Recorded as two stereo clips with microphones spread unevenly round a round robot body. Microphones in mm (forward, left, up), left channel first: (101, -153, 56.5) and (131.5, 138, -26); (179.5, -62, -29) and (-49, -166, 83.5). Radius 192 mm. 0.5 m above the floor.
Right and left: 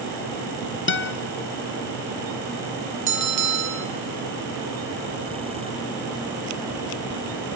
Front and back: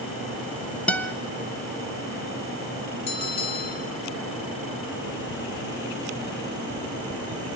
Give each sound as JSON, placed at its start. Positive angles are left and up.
{"t": 0.9, "sound": "a guitar", "azimuth_deg": -40, "distance_m": 1.2}
{"t": 3.1, "sound": "a bell", "azimuth_deg": 70, "distance_m": 2.0}